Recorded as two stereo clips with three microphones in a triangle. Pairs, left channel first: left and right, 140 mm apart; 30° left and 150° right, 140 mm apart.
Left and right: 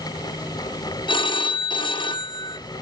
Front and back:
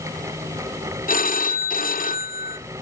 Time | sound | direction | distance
1.1 | a phone ringing | 35° left | 0.8 m